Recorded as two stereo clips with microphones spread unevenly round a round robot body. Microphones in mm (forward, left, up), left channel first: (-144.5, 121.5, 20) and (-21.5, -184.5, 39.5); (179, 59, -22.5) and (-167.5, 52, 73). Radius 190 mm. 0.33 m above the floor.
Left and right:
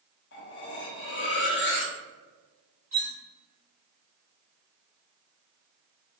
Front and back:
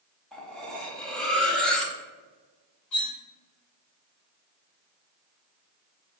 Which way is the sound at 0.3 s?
75° left.